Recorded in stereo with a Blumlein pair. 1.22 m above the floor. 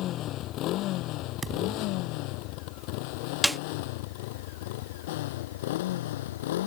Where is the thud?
10° right.